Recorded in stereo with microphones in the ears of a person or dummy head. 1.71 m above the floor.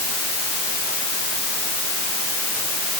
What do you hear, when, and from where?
Only background noise.